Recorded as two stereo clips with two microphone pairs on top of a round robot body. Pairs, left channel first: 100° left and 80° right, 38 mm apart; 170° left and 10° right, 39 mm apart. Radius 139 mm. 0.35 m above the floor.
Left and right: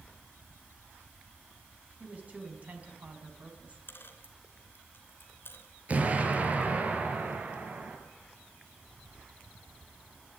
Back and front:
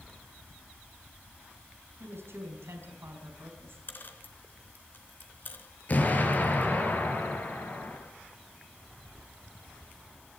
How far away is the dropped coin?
About 3 m.